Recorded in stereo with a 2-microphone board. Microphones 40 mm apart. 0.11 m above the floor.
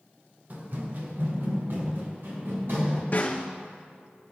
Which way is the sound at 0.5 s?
40° right (ahead or behind).